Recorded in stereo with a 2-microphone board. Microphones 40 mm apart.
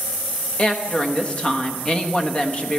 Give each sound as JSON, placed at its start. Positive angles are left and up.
{"t": 0.6, "sound": "a woman speaking", "side_deg": 30, "distance_m": 1.2}